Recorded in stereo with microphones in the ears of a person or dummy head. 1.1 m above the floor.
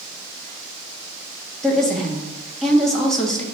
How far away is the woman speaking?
About 1.0 m.